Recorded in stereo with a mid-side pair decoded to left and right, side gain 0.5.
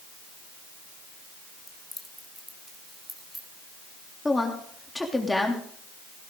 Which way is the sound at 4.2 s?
15° left.